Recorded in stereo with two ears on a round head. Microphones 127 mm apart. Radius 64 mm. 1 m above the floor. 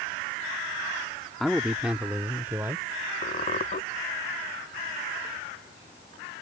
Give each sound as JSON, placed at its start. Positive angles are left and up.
{"t": 1.4, "sound": "a man speaking", "side_deg": 0}
{"t": 3.2, "sound": "a squeak", "side_deg": 50}